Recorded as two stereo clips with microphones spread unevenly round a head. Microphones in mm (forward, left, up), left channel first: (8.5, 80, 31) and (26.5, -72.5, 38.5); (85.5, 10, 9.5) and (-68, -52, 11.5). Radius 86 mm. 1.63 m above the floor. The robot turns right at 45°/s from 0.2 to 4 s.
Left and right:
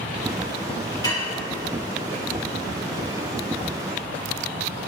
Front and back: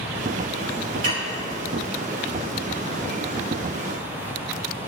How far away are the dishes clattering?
About 4 m.